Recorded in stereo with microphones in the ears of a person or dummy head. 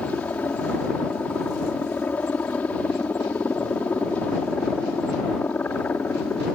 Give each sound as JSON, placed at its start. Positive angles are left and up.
{"t": 0.0, "sound": "a helicopter", "side_deg": 10}